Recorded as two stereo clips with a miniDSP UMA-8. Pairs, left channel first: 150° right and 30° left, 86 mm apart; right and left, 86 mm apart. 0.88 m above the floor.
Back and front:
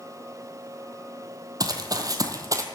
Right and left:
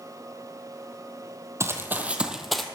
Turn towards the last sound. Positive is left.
turn(degrees=-5)